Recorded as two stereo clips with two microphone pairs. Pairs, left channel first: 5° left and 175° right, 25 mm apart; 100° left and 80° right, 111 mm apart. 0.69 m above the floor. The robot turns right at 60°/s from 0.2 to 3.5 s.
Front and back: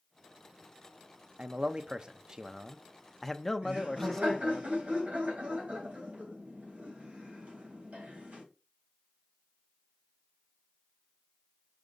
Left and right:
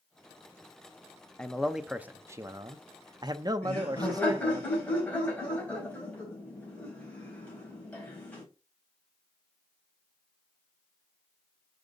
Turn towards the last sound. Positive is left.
turn(degrees=175)